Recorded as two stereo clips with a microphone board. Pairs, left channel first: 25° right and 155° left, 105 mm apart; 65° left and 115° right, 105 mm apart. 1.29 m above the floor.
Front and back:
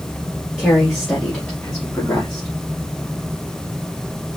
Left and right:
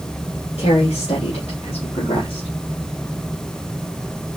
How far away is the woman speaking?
About 2.5 m.